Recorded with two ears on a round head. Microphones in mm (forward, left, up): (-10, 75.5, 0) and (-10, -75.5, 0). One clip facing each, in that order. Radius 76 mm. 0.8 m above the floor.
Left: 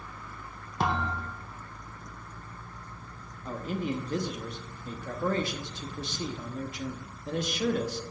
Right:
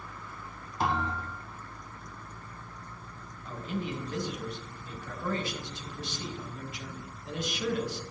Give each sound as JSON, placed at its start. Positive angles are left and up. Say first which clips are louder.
{"t": 0.8, "sound": "a thud", "louder": "left 1 dB", "side_deg": 60, "distance_m": 1.7}
{"t": 3.5, "sound": "a man speaking", "louder": "left 3 dB", "side_deg": 35, "distance_m": 0.9}